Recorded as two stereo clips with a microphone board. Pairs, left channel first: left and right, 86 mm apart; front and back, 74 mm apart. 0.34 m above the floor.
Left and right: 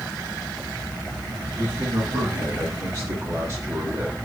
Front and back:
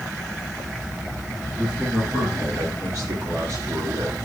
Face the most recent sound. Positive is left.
turn(degrees=-135)